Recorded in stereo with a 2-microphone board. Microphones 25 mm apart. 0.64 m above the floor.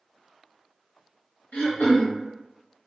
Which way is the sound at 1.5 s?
65° left (ahead or behind).